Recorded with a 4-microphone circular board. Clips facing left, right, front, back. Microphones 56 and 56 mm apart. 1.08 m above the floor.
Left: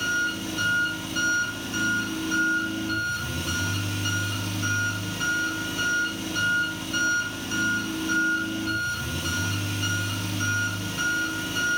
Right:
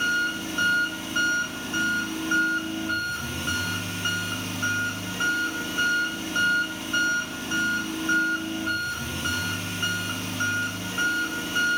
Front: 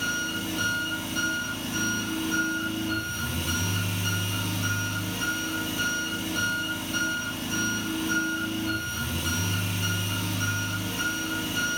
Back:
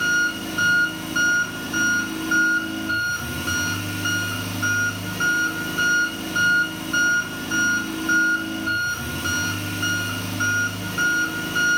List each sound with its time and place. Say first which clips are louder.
0.0 s an engine running: right 1 dB, back 8 dB; 150° right, 2.5 m